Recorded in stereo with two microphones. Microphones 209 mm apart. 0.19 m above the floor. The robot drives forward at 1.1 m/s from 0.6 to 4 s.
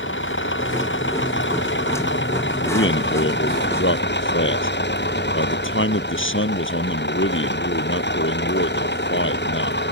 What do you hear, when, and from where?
0.0 s an engine running: 70° left (ahead or behind); by 9.9 s 60° left (ahead or behind)
2.6 s a man speaking: 70° left (ahead or behind); by 9.8 s 75° left (ahead or behind)